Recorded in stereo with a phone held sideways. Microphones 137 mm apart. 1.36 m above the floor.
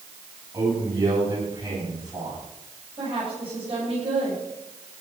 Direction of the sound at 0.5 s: 30° right (ahead or behind).